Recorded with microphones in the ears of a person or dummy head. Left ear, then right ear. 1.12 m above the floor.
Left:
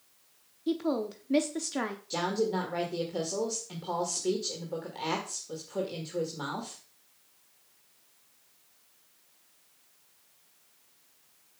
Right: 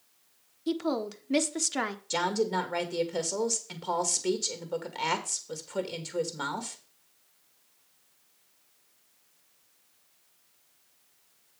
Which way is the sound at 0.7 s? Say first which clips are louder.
Even; 25° right (ahead or behind).